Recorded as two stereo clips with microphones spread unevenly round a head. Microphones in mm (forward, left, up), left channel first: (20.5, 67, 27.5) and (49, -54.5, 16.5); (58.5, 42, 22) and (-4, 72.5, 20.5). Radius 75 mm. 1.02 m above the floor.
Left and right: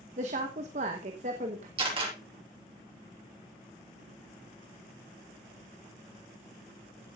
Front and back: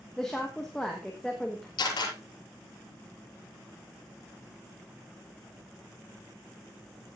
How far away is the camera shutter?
About 6 m.